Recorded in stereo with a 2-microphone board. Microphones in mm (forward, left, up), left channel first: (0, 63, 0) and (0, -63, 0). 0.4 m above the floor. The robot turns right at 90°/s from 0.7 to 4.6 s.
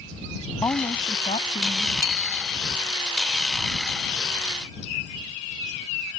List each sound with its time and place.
0.6 s a woman speaking: 30° left; by 1.9 s 140° left
2.0 s a bicycle bell: 155° right; by 2.6 s 105° right